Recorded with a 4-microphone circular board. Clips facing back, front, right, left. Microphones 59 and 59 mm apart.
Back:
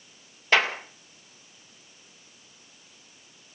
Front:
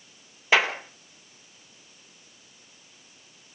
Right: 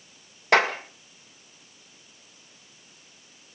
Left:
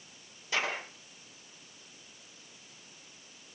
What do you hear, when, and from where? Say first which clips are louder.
0.5 s a clap: front 1 dB, right 12 dB; 80° right, 2 m